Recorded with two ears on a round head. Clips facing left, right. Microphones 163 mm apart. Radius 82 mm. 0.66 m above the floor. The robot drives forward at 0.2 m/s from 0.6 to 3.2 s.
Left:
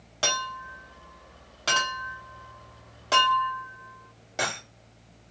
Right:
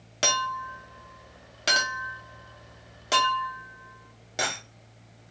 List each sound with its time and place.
0.2 s a clink: 25° right (ahead or behind), 0.8 m; by 4.6 s 15° right (ahead or behind), 1.2 m